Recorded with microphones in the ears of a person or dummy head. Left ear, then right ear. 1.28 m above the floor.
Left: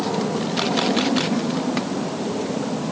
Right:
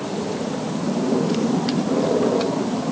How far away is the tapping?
I don't hear tapping.